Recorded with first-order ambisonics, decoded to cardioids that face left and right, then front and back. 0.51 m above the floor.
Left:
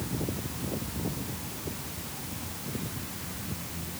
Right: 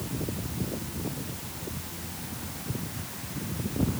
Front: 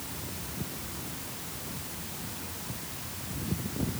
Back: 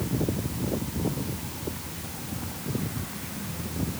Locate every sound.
Only background noise.